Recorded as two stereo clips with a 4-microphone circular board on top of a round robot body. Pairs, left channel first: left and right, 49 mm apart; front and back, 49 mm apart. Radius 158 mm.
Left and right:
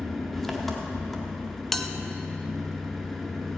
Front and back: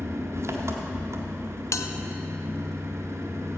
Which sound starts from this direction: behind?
An engine running, at 0.0 s.